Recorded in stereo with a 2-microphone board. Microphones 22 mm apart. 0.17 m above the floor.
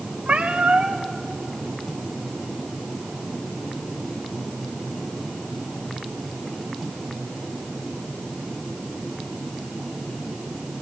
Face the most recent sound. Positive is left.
turn(degrees=-85)